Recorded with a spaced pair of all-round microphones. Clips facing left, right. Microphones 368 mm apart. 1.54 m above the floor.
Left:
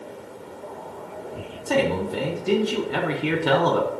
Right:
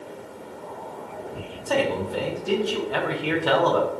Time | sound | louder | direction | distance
1.7 | a man speaking | left 2 dB | 35° left (ahead or behind) | 0.5 m